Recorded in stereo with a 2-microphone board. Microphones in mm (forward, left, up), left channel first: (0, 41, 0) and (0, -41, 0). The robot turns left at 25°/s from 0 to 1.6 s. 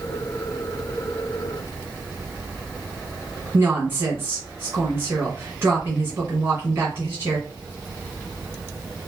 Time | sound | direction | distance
3.5 | a woman speaking | 25° right (ahead or behind) | 1.5 m